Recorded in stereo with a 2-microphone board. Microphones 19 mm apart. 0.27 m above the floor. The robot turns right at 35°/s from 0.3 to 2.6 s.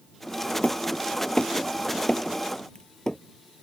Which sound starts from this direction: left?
Hammering, at 0.6 s.